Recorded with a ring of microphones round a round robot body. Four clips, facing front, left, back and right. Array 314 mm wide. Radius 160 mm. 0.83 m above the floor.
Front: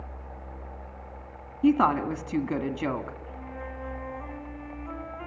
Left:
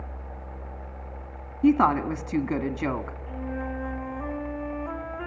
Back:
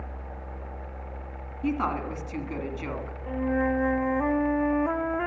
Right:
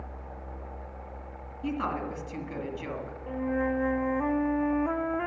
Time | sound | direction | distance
1.6 | a woman speaking | 55° left | 2 m
3.3 | a flute | 160° right | 0.9 m